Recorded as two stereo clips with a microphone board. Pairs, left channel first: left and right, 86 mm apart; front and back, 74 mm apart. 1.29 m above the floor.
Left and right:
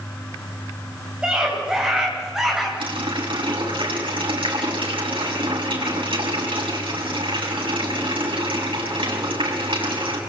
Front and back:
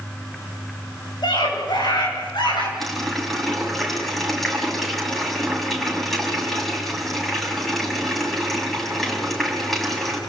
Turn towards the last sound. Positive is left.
turn(degrees=-85)